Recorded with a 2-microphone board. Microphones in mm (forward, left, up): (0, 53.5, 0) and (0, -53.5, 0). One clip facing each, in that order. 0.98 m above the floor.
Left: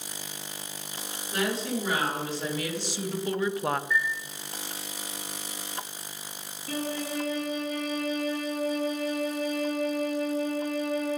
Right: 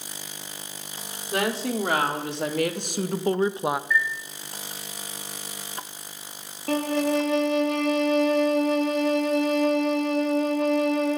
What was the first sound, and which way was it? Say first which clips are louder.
A woman speaking: right 3 dB; 70° right (ahead or behind).